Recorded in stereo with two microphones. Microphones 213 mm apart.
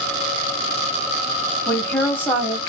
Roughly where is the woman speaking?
Centre.